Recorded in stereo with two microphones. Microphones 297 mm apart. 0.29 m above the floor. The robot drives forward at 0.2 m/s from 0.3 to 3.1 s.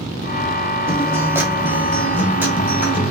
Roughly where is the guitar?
Centre.